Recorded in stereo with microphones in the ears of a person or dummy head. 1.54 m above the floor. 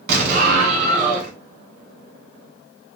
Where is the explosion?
45° right (ahead or behind), 2.5 m.